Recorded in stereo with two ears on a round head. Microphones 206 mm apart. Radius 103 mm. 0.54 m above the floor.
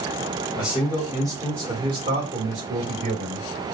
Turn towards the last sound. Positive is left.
turn(degrees=-55)  # may be behind; listen again after turning